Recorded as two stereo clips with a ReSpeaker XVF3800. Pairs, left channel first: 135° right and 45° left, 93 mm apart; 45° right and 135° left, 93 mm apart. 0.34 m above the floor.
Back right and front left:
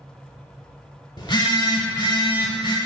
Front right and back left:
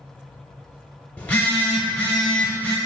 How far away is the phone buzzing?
About 0.7 m.